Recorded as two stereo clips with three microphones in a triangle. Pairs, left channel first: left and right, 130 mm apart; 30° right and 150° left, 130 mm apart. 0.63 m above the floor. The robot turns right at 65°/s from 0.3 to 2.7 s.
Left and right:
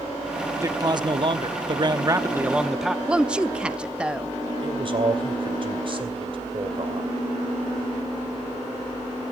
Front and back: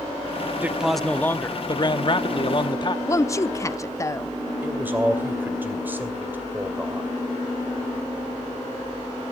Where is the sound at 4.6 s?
135° right, 2.5 m.